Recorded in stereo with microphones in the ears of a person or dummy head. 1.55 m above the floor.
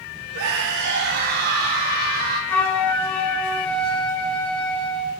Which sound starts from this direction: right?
A scream, at 0.3 s.